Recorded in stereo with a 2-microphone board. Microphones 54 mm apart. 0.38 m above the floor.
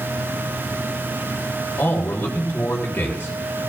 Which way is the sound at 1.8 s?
40° left (ahead or behind).